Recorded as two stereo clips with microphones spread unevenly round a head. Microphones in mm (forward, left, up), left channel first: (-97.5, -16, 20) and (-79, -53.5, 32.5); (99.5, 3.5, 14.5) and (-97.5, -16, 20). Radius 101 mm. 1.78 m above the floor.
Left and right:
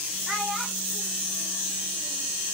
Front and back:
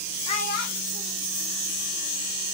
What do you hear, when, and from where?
0.3 s a child speaking: 45° right, 0.7 m; by 2.3 s 10° left, 3 m